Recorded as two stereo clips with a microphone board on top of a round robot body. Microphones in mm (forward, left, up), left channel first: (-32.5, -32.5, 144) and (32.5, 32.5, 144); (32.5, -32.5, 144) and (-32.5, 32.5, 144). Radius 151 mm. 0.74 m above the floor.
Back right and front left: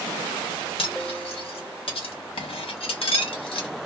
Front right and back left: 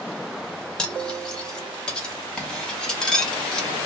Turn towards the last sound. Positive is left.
turn(degrees=-130)